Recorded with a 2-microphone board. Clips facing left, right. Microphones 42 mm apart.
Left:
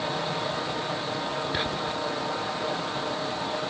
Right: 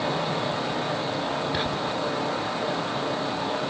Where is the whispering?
10° left (ahead or behind).